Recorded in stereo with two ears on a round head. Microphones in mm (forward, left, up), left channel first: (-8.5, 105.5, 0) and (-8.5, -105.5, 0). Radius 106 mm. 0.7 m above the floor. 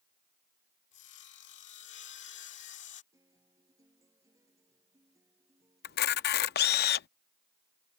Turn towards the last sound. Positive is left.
turn(degrees=45)  # may be behind; listen again after turning